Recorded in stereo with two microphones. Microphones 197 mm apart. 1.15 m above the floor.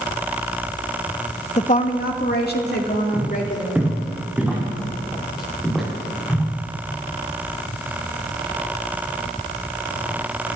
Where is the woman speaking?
35° left (ahead or behind), 0.8 m; by 3.8 s 60° left (ahead or behind), 3.5 m.